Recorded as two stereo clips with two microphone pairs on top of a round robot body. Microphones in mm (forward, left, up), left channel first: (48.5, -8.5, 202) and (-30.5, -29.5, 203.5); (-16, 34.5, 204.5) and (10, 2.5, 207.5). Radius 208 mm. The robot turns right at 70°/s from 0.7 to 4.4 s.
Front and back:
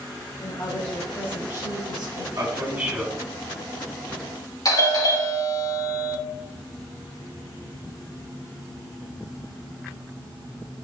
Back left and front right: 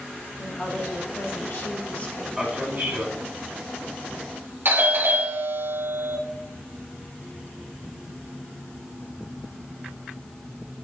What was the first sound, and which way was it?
A woman speaking, 80° left.